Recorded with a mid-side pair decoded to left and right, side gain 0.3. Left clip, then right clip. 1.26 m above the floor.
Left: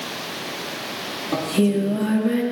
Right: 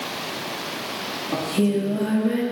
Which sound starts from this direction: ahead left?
Singing, at 1.3 s.